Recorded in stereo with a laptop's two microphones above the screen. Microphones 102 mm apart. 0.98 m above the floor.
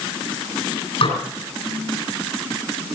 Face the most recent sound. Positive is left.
turn(degrees=65)  # may be behind; listen again after turning